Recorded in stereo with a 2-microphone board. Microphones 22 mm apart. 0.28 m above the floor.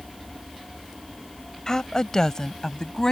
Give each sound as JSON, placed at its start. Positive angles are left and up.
{"t": 1.7, "sound": "a woman speaking", "side_deg": 30}